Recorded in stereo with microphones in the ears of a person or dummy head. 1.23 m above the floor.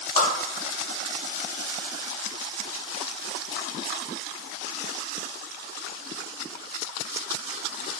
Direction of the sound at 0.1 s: 25° left (ahead or behind).